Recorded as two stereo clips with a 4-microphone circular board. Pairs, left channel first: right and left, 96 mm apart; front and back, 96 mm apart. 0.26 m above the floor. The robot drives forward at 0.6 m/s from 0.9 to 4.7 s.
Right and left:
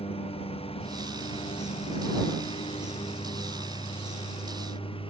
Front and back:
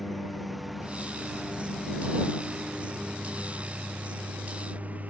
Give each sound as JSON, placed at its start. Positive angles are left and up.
{"t": 0.0, "sound": "a lawn mower", "azimuth_deg": -90}